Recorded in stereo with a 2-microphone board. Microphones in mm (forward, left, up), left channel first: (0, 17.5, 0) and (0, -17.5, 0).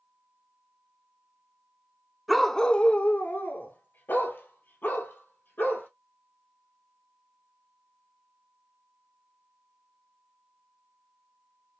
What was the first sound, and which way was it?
A dog barking, centre (ahead or behind).